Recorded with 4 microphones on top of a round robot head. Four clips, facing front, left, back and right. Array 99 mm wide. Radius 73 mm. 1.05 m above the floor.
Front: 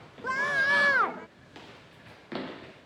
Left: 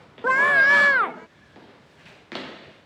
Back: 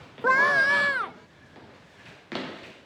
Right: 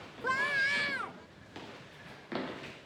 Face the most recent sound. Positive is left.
turn(degrees=40)